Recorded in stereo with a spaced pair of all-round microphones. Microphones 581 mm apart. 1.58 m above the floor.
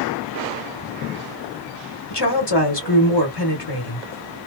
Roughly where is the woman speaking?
Left.